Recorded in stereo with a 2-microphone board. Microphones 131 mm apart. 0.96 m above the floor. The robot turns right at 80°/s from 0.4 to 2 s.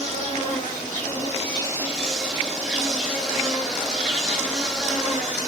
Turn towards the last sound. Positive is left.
turn(degrees=0)